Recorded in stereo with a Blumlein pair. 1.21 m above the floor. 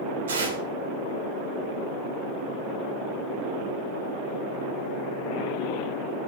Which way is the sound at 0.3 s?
65° right.